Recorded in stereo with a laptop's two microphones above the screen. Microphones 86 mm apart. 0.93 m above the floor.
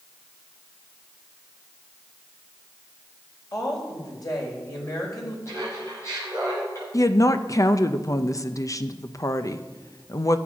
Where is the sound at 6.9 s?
40° left (ahead or behind), 0.7 m.